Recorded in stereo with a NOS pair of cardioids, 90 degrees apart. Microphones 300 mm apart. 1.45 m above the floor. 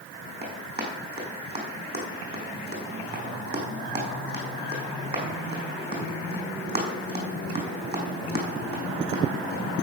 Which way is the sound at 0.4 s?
30° right.